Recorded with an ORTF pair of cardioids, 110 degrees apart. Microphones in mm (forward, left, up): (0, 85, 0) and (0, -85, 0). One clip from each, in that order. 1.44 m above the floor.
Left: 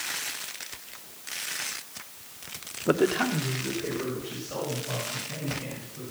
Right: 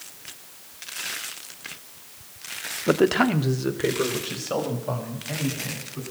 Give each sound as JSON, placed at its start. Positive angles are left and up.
{"t": 2.9, "sound": "a man speaking", "azimuth_deg": -5, "distance_m": 0.7}